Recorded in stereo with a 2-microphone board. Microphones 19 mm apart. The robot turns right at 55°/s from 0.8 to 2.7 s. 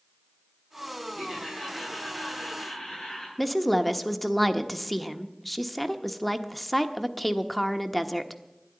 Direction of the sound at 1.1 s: 40° right.